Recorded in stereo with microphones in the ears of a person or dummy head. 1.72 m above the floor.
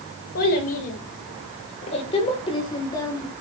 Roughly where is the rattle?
I don't hear a rattle.